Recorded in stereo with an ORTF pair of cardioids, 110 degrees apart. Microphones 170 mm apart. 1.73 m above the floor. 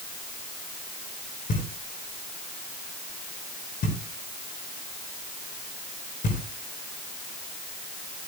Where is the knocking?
55° left, 5.5 m.